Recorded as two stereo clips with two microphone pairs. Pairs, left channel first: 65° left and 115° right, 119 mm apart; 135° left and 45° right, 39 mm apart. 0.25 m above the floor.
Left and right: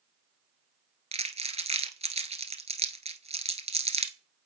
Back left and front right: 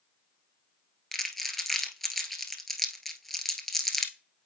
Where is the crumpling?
135° right, 1.3 m.